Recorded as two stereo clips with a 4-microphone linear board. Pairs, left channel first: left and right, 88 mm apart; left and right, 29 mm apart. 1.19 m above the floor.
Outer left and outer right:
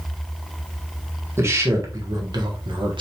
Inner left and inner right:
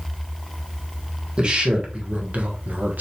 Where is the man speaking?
30° right (ahead or behind), 1.5 m; by 3.0 s 65° right (ahead or behind), 1.2 m.